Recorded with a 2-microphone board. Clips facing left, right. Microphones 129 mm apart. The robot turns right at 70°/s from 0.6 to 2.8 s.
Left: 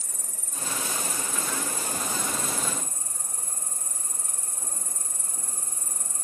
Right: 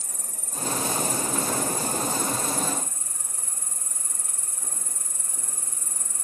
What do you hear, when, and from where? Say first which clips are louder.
0.0 s an insect: right 2 dB; 115° right, 1.2 m; by 6.2 s 35° left, 1.2 m